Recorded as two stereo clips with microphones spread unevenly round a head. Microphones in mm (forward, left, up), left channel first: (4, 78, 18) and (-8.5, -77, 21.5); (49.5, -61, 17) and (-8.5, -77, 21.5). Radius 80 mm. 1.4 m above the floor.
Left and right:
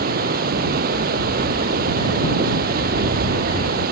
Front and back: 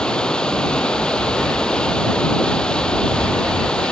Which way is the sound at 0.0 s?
60° right.